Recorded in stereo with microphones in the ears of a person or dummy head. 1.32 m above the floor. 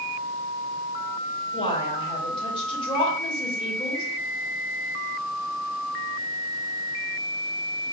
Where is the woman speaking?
30° left (ahead or behind), 1.7 m.